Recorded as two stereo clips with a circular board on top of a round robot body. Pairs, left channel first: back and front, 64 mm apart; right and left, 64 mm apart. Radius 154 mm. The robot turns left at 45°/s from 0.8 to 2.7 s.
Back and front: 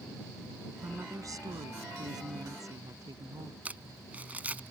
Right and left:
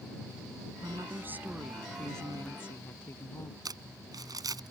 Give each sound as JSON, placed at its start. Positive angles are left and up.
{"t": 0.8, "sound": "a woman speaking", "azimuth_deg": 50}
{"t": 3.6, "sound": "crumpling", "azimuth_deg": 70}